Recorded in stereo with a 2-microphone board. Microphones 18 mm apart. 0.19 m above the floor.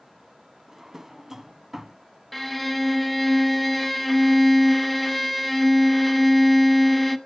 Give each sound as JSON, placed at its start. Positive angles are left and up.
{"t": 0.7, "sound": "a drawer", "side_deg": -20, "distance_m": 0.6}
{"t": 2.3, "sound": "a violin", "side_deg": 5, "distance_m": 0.7}